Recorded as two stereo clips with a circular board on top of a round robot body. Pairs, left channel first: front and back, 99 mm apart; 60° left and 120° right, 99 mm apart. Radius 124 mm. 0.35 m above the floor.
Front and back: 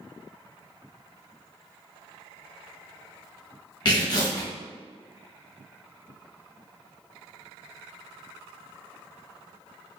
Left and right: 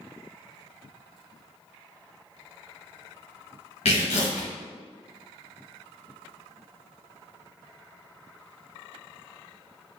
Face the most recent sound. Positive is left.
turn(degrees=45)